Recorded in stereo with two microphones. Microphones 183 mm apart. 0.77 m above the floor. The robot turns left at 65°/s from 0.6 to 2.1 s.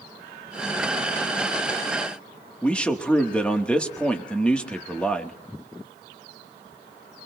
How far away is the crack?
No crack in this recording.